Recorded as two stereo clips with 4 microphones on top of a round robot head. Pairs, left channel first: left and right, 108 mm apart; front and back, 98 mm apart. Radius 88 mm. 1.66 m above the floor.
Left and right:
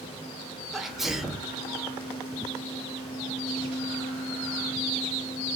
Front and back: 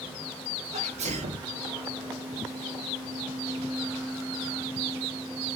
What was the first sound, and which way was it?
A sneeze, straight behind.